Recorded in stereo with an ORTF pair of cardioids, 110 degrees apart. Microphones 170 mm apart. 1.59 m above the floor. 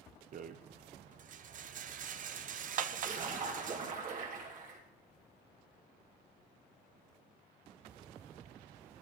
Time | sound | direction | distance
0.3 | a rattle | 50° right | 0.9 m
2.9 | a splash | 50° right | 3 m